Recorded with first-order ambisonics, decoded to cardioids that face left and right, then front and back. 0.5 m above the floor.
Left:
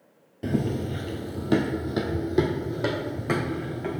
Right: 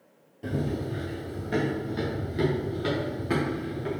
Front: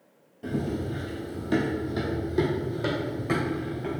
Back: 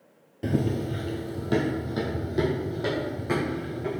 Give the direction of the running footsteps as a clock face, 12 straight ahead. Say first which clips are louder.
Left 3 dB, back 3 dB; 7 o'clock.